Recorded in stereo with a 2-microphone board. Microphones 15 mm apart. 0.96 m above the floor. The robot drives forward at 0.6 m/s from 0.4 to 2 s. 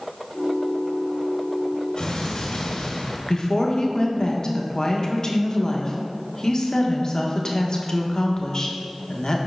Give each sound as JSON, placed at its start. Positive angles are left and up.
{"t": 2.0, "sound": "an explosion", "side_deg": 45, "distance_m": 1.4}
{"t": 3.3, "sound": "a woman speaking", "side_deg": 40, "distance_m": 1.1}